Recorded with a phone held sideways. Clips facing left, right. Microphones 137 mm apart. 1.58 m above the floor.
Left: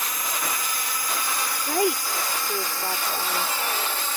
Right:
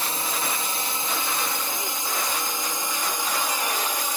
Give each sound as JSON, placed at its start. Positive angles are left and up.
{"t": 0.0, "sound": "a drone", "side_deg": -30}
{"t": 1.7, "sound": "a woman speaking", "side_deg": 65}